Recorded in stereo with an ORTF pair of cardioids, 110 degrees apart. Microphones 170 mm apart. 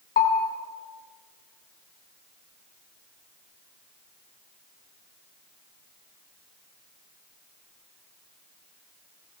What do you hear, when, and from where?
0.2 s a bell: 55° left, 5 m